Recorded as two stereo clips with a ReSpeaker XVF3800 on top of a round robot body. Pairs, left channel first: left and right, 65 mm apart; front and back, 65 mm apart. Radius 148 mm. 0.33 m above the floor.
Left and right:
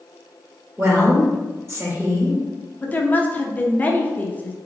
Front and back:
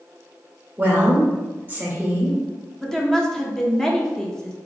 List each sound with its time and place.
0.8 s a woman speaking: 120° right, 1.8 m
2.8 s a woman speaking: 75° left, 1.0 m